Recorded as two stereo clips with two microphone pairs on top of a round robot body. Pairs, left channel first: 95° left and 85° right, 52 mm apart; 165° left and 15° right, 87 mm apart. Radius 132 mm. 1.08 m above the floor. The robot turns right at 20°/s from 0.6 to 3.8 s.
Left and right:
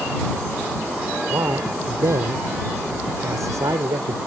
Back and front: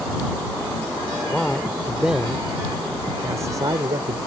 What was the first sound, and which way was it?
A man speaking, 115° right.